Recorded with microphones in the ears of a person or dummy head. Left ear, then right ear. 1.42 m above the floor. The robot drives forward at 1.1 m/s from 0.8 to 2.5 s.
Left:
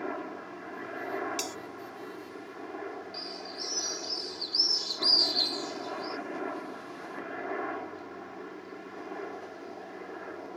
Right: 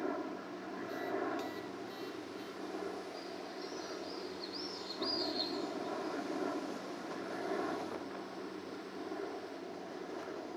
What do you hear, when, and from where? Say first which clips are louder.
0.0 s a helicopter: left 3 dB; 70° left (ahead or behind)
1.4 s a bell: left 6 dB; 75° left (ahead or behind); by 1.6 s 80° left
3.1 s a bird: left 6 dB; 55° left (ahead or behind)